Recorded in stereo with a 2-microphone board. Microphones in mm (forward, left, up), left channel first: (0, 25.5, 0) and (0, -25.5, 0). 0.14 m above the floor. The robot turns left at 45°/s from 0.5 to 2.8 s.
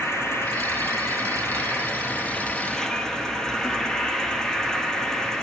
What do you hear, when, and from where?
0.0 s an insect: 115° left, 0.9 m; by 5.4 s 10° left, 0.9 m